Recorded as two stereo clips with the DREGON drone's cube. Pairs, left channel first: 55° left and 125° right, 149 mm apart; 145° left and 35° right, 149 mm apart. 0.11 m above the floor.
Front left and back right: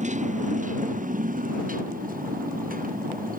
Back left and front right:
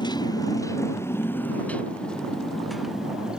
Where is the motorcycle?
155° right; by 3.4 s 120° right.